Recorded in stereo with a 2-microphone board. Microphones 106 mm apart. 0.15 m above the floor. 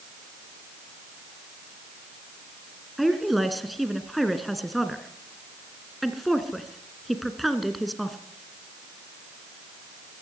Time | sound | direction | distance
3.0 | a woman speaking | centre (ahead or behind) | 2 m